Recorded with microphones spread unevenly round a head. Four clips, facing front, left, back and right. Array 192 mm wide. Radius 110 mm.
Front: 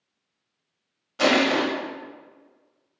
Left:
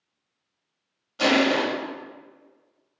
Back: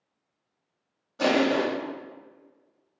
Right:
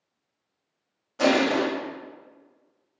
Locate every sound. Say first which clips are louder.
1.2 s crushing: even, front 2 dB; 75° right, 0.9 m